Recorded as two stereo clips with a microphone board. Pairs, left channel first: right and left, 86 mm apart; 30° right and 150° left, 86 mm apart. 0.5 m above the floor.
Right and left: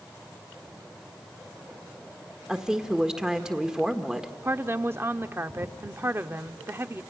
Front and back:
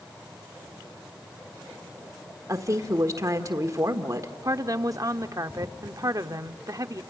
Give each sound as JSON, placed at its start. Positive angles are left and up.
{"t": 2.5, "sound": "a woman speaking", "azimuth_deg": 170, "distance_m": 1.4}
{"t": 4.4, "sound": "a woman speaking", "azimuth_deg": 140, "distance_m": 0.8}